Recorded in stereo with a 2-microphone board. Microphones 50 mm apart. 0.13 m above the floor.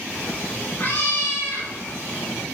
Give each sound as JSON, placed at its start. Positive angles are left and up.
{"t": 0.1, "sound": "a cat meowing", "side_deg": 30, "distance_m": 7.5}